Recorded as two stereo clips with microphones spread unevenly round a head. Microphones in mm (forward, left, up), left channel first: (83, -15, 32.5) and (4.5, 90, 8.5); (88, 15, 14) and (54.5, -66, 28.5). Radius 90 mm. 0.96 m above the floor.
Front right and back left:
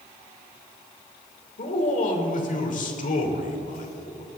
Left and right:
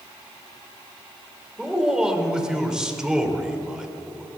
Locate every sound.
1.6 s a man speaking: 30° right, 3 m